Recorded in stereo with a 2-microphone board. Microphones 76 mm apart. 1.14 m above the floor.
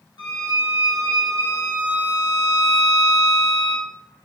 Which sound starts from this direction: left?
A violin, at 0.2 s.